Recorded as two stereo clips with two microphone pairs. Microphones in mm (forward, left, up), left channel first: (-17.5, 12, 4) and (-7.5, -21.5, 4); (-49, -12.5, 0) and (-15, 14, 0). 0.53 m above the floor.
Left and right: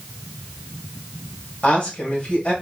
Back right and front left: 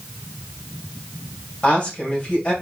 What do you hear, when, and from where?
1.6 s a woman speaking: 160° left, 2.5 m